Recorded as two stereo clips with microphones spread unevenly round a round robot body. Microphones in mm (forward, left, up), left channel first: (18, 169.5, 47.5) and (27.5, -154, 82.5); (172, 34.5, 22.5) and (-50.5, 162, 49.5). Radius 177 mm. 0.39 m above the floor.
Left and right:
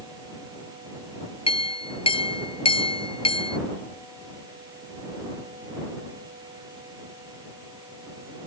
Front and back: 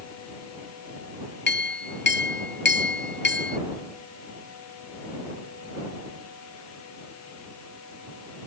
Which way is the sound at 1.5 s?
15° left.